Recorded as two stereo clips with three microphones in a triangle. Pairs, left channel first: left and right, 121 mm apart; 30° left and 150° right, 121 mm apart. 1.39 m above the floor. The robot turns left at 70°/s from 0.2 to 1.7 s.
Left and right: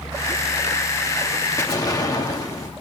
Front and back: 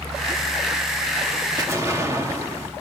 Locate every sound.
1.6 s an explosion: 155° left, 1.4 m; by 2.7 s 150° left, 1.4 m